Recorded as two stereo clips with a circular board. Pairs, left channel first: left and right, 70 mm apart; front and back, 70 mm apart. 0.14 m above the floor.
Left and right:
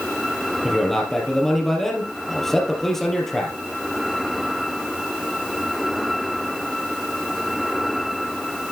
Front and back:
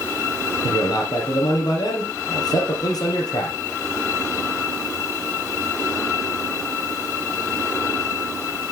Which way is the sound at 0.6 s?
5° left.